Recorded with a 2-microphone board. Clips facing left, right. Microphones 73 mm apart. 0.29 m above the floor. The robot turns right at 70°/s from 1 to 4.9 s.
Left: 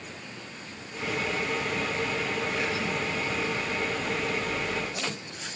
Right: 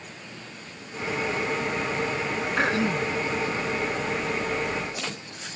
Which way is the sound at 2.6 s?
75° right.